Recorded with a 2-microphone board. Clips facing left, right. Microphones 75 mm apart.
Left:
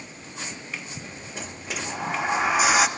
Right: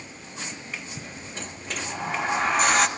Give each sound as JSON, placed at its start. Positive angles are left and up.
{"t": 1.4, "sound": "a sliding door", "side_deg": 5, "distance_m": 0.9}